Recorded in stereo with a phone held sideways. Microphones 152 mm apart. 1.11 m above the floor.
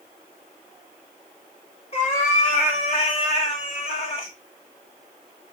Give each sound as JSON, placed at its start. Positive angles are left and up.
{"t": 1.9, "sound": "a cat meowing", "side_deg": 45, "distance_m": 1.9}